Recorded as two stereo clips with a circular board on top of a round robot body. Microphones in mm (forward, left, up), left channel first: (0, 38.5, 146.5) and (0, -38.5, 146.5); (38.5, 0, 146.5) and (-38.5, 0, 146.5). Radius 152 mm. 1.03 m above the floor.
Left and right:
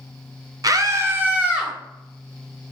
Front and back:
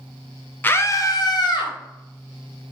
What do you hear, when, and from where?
0.6 s a scream: 60° right, 0.9 m; by 1.7 s 10° right, 1.6 m